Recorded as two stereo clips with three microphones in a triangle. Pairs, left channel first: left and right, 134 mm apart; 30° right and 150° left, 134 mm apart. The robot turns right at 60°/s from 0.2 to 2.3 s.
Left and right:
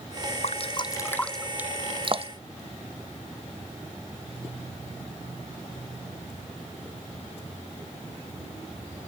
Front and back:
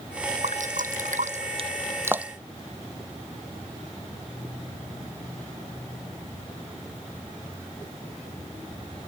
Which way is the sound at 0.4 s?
120° left.